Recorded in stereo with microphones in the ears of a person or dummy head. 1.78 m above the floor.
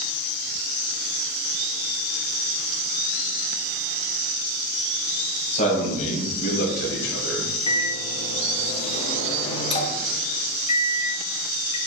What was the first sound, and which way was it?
A man speaking, 40° left (ahead or behind).